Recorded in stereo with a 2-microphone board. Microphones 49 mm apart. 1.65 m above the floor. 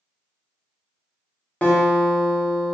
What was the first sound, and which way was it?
A guitar, 25° left (ahead or behind).